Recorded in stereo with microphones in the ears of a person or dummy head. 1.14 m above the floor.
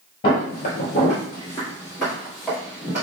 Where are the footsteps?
40° left (ahead or behind), 1.4 m; by 3.0 s 10° right (ahead or behind), 1.5 m.